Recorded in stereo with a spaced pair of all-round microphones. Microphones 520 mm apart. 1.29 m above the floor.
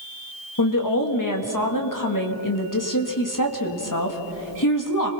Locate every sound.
0.6 s a woman speaking: 35° left (ahead or behind), 2 m